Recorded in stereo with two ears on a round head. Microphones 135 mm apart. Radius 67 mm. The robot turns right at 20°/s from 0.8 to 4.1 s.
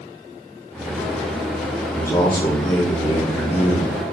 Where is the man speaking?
30° left, 1.2 m; by 3.9 s 70° left, 1.2 m.